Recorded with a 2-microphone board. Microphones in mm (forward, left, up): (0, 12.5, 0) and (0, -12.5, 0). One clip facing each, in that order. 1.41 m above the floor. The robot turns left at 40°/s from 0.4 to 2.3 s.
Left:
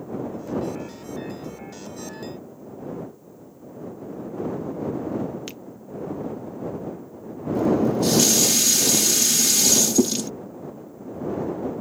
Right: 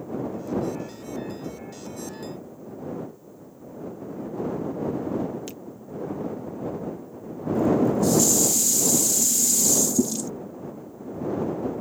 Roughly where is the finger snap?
Left.